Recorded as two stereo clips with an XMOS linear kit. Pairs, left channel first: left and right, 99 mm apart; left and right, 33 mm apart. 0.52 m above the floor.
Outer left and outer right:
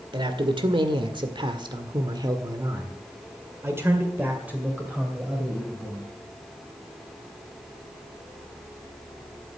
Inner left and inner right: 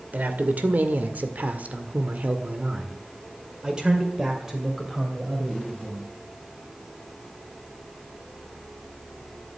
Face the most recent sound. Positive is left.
turn(degrees=-5)  # may be behind; listen again after turning